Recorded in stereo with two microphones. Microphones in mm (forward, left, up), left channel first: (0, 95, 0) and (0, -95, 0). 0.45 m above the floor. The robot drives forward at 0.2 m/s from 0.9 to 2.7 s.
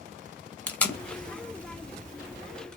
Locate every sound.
0.7 s tape being pulled: 10° left (ahead or behind), 0.6 m; by 2.8 s 5° left (ahead or behind), 0.9 m